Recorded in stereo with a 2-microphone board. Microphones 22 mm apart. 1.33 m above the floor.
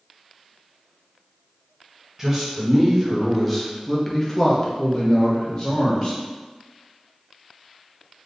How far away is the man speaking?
About 1.4 m.